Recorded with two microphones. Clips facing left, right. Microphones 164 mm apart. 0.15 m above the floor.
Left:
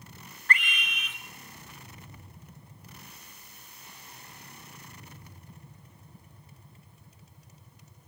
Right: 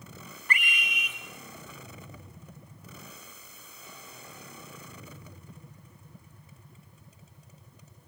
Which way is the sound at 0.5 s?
10° right (ahead or behind).